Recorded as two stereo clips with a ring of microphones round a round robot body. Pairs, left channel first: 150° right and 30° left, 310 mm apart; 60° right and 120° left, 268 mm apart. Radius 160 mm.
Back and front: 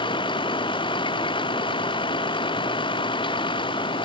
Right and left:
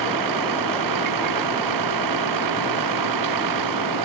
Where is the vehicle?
135° left.